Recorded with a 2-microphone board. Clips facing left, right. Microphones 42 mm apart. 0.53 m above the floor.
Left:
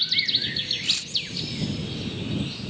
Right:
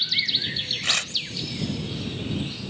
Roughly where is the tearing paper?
Right.